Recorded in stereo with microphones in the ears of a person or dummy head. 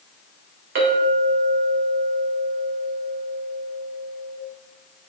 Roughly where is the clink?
Right.